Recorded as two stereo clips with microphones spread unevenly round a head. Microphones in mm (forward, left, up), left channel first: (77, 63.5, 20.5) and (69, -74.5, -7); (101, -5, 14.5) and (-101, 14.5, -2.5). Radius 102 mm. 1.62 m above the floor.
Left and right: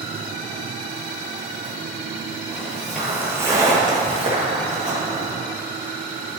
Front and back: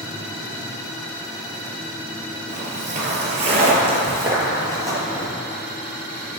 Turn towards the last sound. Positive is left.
turn(degrees=-105)